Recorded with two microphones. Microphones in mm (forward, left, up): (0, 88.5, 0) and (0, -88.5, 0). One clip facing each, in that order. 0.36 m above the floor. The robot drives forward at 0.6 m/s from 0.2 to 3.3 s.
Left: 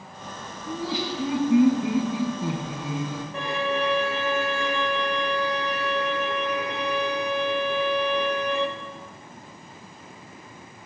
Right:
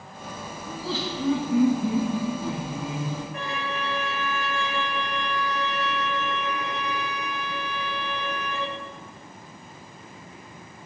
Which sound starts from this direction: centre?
Laughter, at 0.7 s.